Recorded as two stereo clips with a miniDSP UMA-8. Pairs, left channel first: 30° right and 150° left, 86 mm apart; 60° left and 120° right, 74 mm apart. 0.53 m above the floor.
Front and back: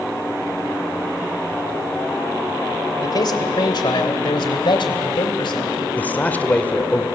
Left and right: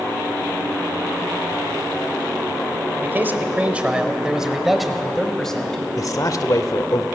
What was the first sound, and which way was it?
A man speaking, 65° right.